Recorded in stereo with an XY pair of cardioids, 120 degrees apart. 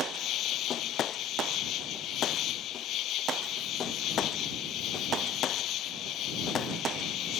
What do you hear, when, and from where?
0.0 s an insect: 65° left